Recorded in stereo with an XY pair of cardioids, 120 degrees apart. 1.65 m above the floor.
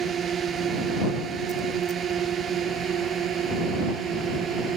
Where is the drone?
50° right; by 4.8 s 55° right.